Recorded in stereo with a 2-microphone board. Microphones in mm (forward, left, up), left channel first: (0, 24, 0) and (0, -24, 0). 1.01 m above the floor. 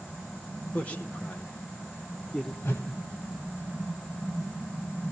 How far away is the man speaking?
About 1.8 m.